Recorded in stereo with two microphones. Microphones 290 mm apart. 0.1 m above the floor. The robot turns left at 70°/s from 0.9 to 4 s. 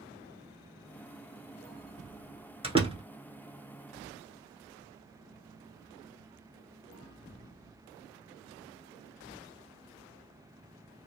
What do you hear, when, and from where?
2.6 s a door slam: 20° right (ahead or behind), 0.8 m